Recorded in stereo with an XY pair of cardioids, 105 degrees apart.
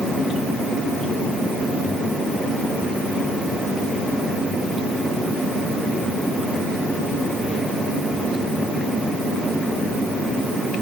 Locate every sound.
Only background noise.